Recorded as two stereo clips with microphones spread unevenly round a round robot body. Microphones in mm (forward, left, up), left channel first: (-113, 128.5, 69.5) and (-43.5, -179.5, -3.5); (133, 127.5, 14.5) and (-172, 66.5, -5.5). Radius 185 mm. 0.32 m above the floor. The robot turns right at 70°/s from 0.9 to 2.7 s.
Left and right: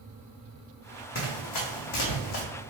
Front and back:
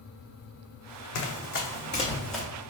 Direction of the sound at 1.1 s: 45° left.